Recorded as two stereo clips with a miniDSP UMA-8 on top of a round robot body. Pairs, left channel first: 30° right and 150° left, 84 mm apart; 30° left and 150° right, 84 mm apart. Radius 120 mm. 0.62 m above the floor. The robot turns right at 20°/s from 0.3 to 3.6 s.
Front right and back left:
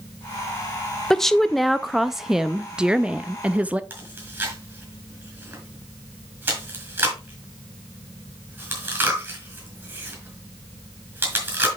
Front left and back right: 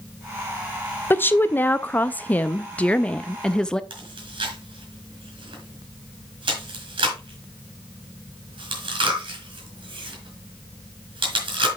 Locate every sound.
1.1 s a woman speaking: 50° left, 0.6 m; by 3.8 s 100° left, 0.6 m
3.9 s chewing: 145° right, 4 m